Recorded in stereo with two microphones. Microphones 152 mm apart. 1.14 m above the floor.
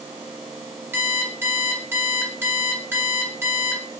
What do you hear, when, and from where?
0.9 s an alarm clock: 15° right (ahead or behind), 0.7 m